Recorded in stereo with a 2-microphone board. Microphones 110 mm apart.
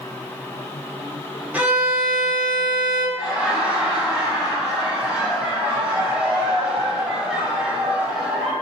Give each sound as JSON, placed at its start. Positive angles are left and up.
{"t": 1.5, "sound": "a violin", "side_deg": -15, "distance_m": 0.8}
{"t": 3.2, "sound": "laughter", "side_deg": -10, "distance_m": 1.6}